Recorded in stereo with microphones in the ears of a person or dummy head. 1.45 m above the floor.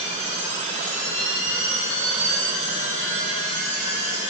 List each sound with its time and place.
0.0 s a machine running: 35° right (ahead or behind), 1.2 m